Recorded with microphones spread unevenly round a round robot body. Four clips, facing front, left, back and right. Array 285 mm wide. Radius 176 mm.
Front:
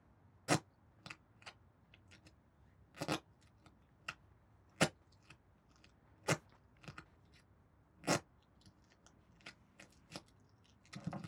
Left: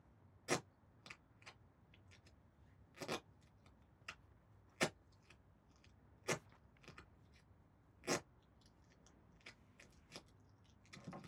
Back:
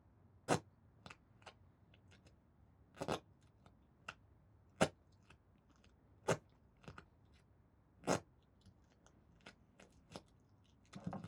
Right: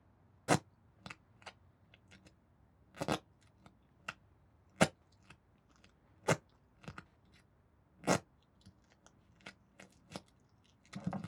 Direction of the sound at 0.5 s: 70° right.